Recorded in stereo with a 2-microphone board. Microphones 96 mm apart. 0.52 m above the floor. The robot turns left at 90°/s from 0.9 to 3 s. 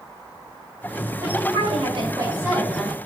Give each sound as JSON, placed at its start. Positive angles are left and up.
{"t": 1.2, "sound": "a woman speaking", "azimuth_deg": -40, "distance_m": 3.0}